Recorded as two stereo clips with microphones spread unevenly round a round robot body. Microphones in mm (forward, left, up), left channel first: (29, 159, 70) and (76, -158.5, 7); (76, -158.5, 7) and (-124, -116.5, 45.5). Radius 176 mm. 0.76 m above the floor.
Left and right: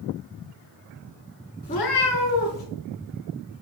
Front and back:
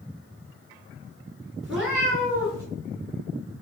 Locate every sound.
1.6 s a cat meowing: 105° left, 0.7 m; by 2.6 s 90° left, 1.9 m